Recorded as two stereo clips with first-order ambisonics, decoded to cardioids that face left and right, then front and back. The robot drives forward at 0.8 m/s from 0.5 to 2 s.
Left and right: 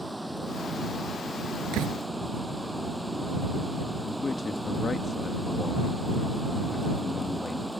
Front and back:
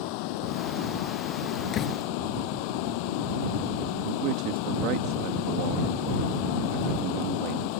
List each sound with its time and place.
0.0 s running water: straight ahead
1.7 s a door slam: 60° right
4.0 s a man speaking: 165° left